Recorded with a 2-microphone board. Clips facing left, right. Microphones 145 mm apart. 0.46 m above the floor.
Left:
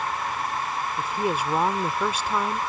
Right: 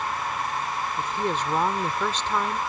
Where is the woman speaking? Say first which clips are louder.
Left 2 dB; 10° left (ahead or behind).